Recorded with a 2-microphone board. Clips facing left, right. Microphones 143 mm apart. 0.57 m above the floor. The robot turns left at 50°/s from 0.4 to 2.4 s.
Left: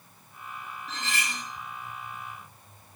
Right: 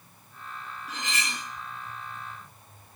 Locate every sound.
0.9 s cutlery clinking: 10° right (ahead or behind), 0.7 m; by 1.4 s 30° right (ahead or behind), 0.7 m